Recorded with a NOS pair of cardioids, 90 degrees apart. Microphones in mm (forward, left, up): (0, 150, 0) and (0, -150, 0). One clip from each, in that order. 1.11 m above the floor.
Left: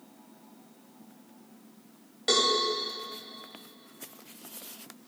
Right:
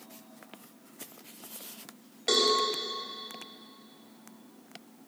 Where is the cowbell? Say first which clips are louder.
Left 1 dB; 5° left, 2.5 m.